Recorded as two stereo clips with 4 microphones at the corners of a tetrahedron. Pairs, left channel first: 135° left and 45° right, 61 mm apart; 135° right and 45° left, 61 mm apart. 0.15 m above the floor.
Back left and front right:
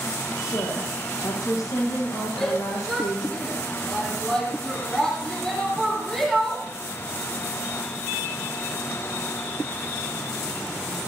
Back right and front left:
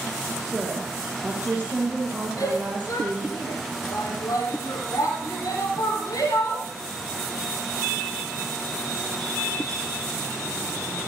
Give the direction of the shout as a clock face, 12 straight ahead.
5 o'clock.